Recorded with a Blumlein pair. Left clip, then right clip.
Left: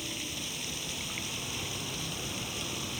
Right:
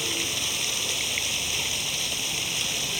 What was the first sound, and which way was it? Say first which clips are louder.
Running water: right 10 dB; 60° right.